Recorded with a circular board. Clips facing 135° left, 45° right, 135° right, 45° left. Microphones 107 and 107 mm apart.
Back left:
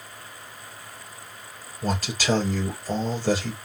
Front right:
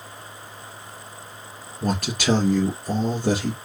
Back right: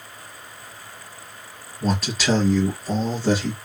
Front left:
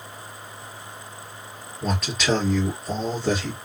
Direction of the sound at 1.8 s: 45° right.